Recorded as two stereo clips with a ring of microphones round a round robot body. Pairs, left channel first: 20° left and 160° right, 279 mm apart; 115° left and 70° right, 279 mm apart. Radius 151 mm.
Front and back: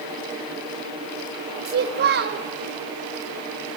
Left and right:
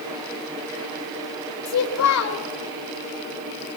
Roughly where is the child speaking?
Behind left.